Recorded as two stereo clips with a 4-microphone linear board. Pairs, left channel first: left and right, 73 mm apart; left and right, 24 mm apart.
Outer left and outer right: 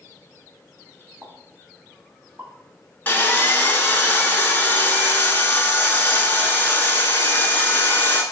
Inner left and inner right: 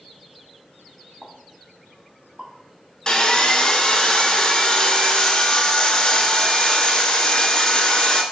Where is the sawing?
30° left (ahead or behind), 0.7 m.